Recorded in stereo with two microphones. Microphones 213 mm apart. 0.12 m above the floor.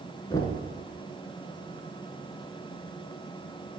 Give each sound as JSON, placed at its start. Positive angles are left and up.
{"t": 0.3, "sound": "knocking", "side_deg": 15, "distance_m": 0.9}